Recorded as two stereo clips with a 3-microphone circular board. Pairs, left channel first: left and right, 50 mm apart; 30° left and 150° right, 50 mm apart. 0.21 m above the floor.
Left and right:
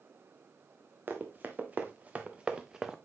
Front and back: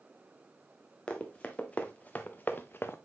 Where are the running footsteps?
40° right, 1.8 m; by 3.0 s 10° right, 0.9 m.